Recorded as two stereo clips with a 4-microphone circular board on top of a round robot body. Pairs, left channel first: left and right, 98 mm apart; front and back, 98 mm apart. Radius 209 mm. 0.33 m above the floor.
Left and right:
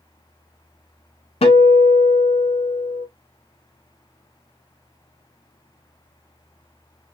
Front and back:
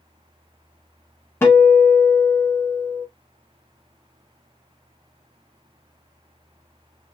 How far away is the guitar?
About 1.0 m.